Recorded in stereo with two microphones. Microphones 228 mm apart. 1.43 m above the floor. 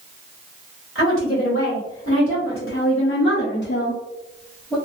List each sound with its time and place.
0.9 s a woman speaking: 65° left (ahead or behind), 1.7 m; by 4.8 s 5° left (ahead or behind), 0.7 m